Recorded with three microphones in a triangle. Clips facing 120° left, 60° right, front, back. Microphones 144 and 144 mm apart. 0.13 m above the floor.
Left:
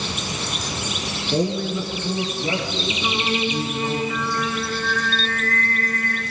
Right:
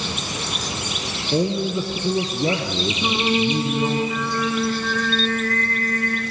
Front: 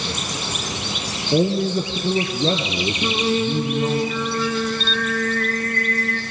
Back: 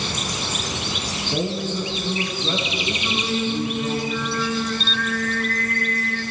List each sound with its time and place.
1.3 s a man speaking: 20° left, 1.5 m; by 4.0 s 30° right, 4 m
3.0 s singing: 15° left, 3 m